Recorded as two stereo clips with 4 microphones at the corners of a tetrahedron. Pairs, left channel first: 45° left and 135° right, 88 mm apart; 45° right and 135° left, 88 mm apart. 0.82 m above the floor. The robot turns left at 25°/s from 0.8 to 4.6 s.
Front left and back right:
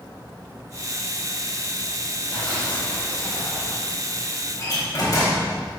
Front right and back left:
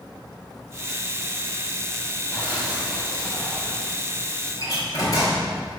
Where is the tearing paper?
75° left, 4 m; by 3.9 s 35° left, 4 m.